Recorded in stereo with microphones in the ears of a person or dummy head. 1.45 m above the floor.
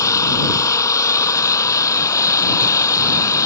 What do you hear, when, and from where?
0.0 s an engine running: 20° left (ahead or behind)